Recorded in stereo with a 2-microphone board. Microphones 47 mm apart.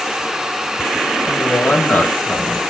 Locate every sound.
1.3 s a woman speaking: 50° left (ahead or behind), 1.4 m